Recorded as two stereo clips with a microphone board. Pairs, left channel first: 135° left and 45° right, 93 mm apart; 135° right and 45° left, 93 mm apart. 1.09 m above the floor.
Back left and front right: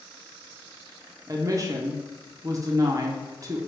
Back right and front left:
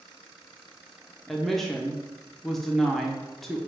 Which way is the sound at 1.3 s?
50° right.